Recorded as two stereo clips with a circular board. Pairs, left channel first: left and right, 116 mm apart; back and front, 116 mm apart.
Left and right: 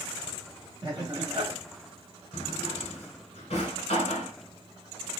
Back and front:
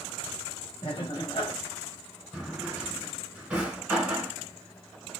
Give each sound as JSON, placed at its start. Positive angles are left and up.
{"t": 0.8, "sound": "laughter", "azimuth_deg": -145, "distance_m": 1.0}
{"t": 2.3, "sound": "a drawer", "azimuth_deg": 75, "distance_m": 1.4}